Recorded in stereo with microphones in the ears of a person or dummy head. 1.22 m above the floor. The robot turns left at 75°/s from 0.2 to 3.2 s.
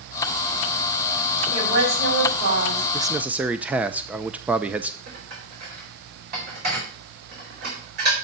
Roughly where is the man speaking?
Right.